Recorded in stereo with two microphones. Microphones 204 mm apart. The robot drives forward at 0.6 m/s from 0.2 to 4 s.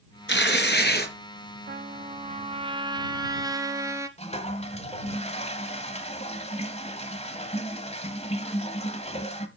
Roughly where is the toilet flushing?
Left.